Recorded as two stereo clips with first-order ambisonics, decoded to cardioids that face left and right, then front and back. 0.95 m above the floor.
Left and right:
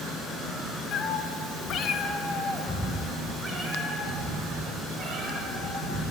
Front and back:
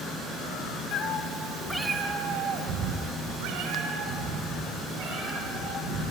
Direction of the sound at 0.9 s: 40° left.